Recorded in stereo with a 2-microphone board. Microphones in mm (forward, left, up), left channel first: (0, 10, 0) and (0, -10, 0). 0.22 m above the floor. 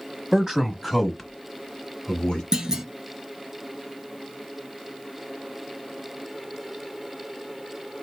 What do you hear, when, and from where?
0.3 s a man speaking: 25° right (ahead or behind), 1.1 m; by 2.4 s 40° left (ahead or behind), 1.3 m
2.5 s a clunk: 30° right (ahead or behind), 0.7 m